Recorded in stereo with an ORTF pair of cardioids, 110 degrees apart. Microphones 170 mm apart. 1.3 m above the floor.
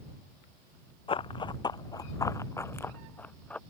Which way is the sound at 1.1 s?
30° left.